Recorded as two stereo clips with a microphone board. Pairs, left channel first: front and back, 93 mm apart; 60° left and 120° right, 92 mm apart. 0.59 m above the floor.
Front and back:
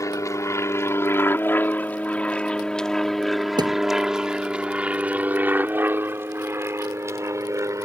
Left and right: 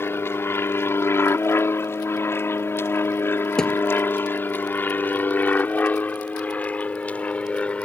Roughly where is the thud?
Behind left.